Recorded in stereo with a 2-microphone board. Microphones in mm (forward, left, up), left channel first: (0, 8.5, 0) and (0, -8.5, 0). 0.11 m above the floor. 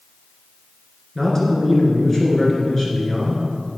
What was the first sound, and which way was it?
A man speaking, 25° left (ahead or behind).